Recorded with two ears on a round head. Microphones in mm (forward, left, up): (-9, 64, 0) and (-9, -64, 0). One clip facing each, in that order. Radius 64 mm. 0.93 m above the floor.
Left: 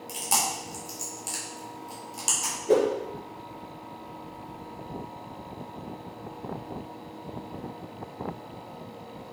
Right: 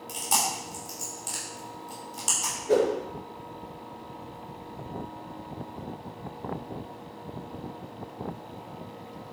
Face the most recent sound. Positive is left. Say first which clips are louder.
# left 1 dB
turn(degrees=35)  # may be behind; listen again after turning